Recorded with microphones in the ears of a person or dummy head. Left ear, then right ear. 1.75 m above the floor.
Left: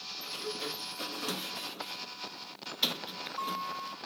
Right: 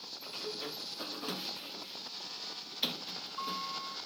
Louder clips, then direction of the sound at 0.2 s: Left 2 dB; 10° left (ahead or behind).